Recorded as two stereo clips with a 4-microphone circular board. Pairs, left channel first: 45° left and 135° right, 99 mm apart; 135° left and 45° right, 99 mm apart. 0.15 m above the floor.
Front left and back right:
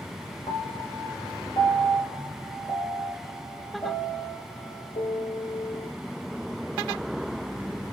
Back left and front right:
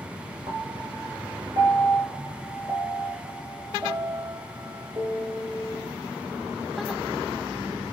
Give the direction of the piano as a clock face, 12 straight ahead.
12 o'clock.